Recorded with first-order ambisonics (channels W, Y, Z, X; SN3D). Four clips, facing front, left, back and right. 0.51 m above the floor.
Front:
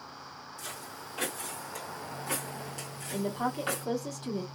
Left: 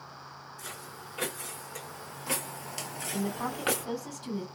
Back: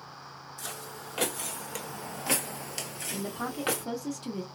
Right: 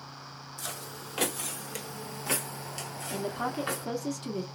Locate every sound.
0.6 s footsteps: 115° right, 1.2 m; by 3.9 s 120° left, 0.9 m
3.1 s a woman speaking: 105° right, 1.1 m